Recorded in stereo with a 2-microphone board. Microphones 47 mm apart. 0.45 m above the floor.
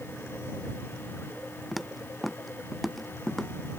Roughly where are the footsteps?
Centre.